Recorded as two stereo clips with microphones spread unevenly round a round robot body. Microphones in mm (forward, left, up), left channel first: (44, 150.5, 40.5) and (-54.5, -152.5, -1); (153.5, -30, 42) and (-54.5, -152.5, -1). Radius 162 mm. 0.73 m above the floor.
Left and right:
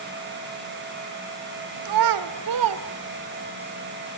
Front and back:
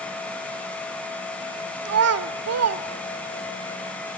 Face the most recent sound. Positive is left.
turn(degrees=-135)